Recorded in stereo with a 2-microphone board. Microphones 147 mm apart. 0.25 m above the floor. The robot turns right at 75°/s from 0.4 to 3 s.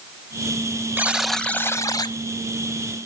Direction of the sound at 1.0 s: 25° right.